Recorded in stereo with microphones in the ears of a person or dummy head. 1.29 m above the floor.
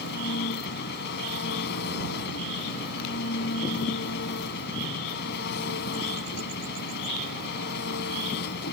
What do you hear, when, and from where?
0.0 s an engine running: 65° left (ahead or behind)